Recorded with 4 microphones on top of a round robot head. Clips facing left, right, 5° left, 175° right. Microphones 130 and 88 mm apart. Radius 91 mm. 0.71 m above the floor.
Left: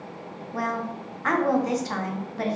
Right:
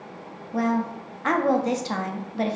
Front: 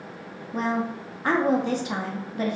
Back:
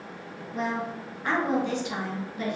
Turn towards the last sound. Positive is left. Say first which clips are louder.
# right 5 dB, front 4 dB
turn(degrees=-30)